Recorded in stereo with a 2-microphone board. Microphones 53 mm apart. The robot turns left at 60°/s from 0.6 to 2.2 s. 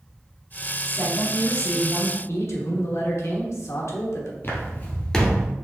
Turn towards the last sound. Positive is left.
turn(degrees=-10)  # may be behind; listen again after turning